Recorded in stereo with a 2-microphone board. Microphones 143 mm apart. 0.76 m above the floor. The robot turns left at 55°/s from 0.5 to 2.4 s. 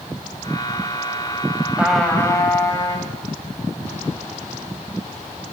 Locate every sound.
1.8 s a trumpet: 170° right, 1.6 m; by 3.1 s 155° left, 1.6 m